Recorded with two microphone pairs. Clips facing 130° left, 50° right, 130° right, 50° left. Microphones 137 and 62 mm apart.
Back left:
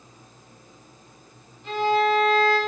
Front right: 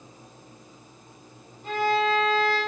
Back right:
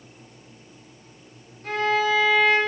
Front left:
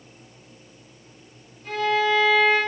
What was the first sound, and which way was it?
A violin, 95° right.